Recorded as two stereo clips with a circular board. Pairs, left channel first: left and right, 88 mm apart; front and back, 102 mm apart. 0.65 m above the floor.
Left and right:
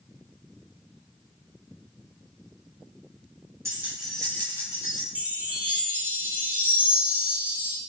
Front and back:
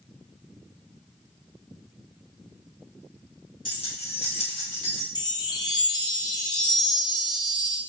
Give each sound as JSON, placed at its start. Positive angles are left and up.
{"t": 3.6, "sound": "keys jangling", "azimuth_deg": -30, "distance_m": 1.0}
{"t": 5.2, "sound": "a chime", "azimuth_deg": -25, "distance_m": 0.7}